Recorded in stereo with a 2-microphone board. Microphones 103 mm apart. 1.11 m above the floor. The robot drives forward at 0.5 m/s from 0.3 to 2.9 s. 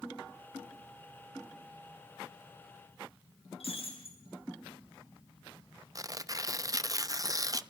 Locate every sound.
3.6 s breaking glass: 70° left (ahead or behind), 7.5 m
6.0 s tearing paper: 35° right (ahead or behind), 0.6 m